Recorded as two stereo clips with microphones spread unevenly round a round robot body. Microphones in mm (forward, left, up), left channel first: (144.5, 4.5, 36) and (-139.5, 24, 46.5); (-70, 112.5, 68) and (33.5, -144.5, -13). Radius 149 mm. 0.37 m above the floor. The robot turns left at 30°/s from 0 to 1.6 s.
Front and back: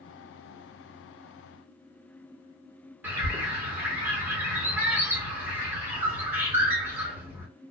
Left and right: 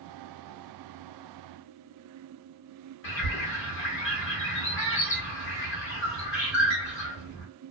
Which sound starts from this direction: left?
A bird, at 3.0 s.